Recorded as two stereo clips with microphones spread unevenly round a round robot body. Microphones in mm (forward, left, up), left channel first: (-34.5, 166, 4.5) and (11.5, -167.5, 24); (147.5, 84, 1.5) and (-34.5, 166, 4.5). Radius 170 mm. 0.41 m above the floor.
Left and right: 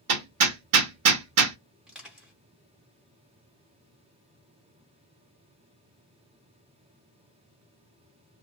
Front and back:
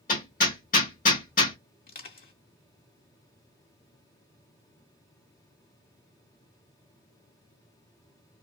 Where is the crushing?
5° left, 1.2 m.